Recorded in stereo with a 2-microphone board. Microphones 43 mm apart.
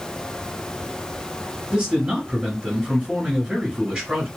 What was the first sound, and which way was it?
A man speaking, 25° right (ahead or behind).